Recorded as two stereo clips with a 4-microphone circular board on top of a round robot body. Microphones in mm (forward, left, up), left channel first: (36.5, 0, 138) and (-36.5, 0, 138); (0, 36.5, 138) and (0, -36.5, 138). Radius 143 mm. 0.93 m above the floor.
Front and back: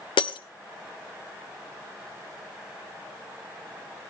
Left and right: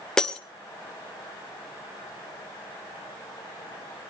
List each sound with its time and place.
0.2 s breaking glass: 10° left, 1.0 m